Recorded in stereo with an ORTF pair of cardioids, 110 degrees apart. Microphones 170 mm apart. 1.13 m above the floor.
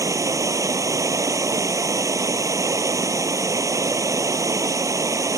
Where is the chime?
No chime in this recording.